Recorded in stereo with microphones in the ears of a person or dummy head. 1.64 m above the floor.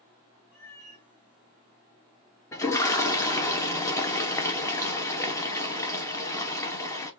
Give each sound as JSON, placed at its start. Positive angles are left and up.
{"t": 0.5, "sound": "a cat meowing", "side_deg": 15, "distance_m": 1.0}
{"t": 2.5, "sound": "a toilet flushing", "side_deg": 15, "distance_m": 1.2}